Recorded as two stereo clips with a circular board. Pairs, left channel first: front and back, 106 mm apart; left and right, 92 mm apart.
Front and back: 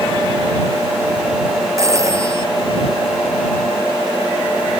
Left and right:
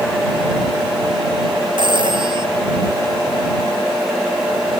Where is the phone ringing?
120° right.